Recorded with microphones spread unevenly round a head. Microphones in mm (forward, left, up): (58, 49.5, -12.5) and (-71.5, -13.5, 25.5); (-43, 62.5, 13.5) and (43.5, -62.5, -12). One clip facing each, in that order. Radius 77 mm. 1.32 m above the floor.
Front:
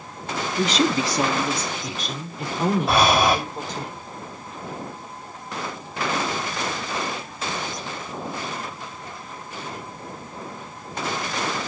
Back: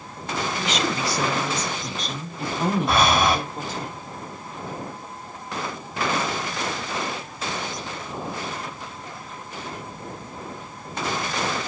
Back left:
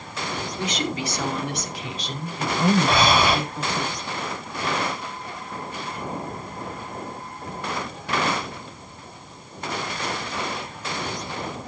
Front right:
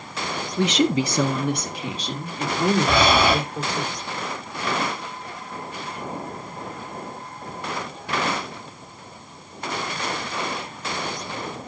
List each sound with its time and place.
0.6 s a woman speaking: 15° right, 0.9 m; by 3.9 s 65° right, 5.5 m
2.9 s breathing: 60° right, 2.5 m